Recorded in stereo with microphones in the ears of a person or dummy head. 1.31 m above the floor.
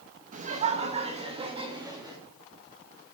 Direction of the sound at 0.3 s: 40° right (ahead or behind).